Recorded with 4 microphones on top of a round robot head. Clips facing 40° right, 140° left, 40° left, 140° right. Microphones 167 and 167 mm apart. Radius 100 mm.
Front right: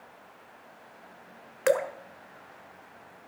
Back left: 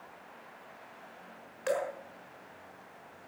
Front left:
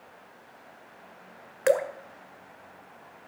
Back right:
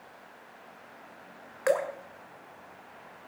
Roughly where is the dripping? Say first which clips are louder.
Front right 7 dB, front left 3 dB; ahead.